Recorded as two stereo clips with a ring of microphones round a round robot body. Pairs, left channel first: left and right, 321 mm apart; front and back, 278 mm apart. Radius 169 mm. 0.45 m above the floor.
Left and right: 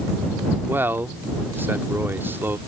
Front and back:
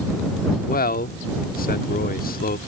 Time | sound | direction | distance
0.7 | a man speaking | 10° right | ?